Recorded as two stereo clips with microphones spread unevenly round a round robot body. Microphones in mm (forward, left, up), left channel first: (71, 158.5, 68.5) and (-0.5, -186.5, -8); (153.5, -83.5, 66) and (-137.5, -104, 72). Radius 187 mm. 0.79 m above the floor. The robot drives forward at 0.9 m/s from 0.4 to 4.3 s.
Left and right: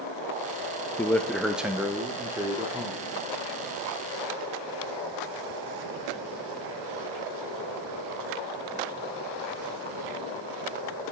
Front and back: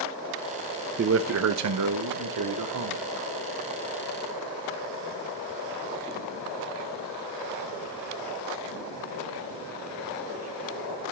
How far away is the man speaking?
About 0.7 m.